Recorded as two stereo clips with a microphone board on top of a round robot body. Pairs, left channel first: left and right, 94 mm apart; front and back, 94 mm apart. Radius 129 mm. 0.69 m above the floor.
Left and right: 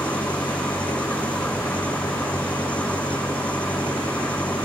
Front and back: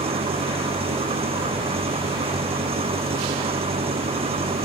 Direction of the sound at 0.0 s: 165° left.